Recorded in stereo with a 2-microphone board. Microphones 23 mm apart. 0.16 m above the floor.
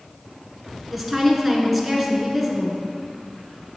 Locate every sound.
0.9 s a woman speaking: centre (ahead or behind), 1.6 m